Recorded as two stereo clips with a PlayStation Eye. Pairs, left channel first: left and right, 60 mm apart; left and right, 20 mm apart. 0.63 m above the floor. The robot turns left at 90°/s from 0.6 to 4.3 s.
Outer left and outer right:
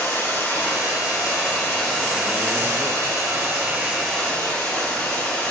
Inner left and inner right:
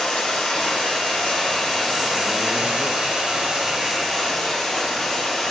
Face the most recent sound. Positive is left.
turn(degrees=160)